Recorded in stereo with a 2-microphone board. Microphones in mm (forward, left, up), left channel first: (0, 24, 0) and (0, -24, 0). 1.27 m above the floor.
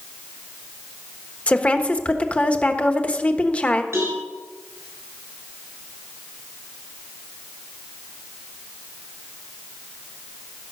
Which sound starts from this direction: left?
A woman speaking, at 1.5 s.